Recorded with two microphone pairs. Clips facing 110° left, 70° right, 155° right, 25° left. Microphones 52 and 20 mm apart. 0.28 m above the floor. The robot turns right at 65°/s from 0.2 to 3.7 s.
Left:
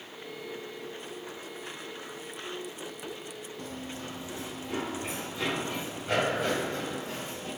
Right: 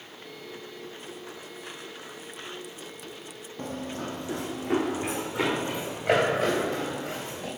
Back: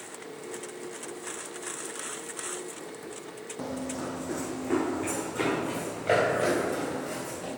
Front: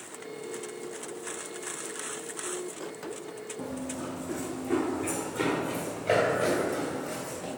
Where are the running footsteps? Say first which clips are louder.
Right 8 dB, back 3 dB; 125° right, 0.7 m; by 7.5 s 80° right, 3 m.